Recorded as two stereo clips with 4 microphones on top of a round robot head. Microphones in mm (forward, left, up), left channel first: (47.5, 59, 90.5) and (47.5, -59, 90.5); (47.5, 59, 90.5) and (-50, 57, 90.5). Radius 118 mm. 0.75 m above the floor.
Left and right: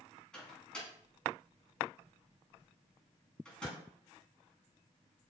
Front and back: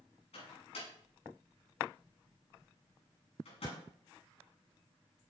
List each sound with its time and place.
0.3 s a microwave: 5° left, 7.5 m